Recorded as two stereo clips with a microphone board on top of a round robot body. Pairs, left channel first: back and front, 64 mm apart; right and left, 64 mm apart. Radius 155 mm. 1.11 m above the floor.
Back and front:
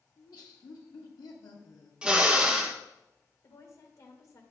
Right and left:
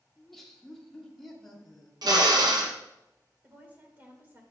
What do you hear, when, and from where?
0.2 s laughter: 175° right, 1.7 m
2.0 s a drill: 75° left, 0.7 m
3.4 s a woman speaking: 150° left, 1.9 m